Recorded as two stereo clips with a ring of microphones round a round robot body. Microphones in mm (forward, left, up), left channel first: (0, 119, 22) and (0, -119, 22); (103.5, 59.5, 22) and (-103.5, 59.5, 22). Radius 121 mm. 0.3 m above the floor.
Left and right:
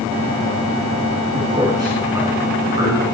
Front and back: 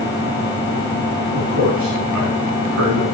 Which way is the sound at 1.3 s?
165° right.